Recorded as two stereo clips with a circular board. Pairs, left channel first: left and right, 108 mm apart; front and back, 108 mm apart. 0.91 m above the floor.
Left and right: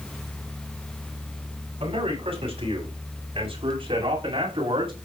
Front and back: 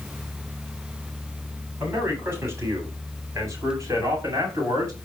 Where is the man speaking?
110° right, 8.5 m; by 4.9 s 125° right, 7.5 m.